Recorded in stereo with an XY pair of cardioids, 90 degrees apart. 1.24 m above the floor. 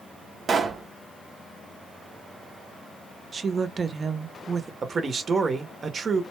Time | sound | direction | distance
0.5 | a pop | 50° right | 0.5 m
3.3 | a woman speaking | 45° right | 0.6 m
4.8 | a man speaking | 45° right | 0.7 m